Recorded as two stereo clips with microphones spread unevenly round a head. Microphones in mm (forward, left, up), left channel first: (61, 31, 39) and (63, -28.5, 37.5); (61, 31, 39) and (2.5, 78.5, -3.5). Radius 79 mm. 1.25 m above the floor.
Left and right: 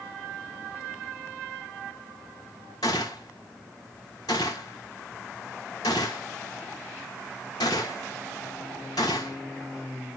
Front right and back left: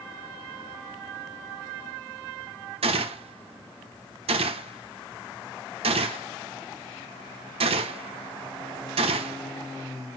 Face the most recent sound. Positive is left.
turn(degrees=145)